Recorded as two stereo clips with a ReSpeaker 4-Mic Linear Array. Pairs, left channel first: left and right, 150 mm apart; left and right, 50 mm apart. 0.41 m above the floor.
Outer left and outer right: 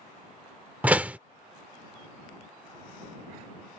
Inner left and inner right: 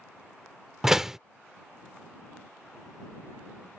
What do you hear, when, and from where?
0.8 s a door slam: 10° right (ahead or behind)